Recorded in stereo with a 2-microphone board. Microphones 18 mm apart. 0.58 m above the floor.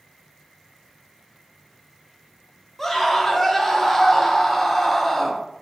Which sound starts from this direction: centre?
A scream, at 2.8 s.